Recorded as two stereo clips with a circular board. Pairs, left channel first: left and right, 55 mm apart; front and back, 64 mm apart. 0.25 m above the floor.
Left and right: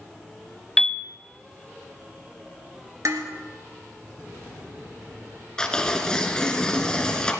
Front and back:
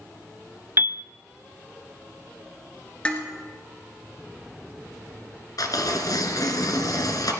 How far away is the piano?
About 0.6 m.